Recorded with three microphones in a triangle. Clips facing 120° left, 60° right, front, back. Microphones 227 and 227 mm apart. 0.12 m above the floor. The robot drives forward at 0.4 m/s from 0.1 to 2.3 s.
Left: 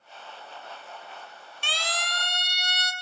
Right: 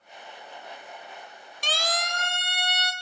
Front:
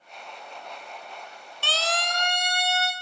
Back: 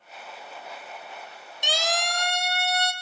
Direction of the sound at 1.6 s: 105° right.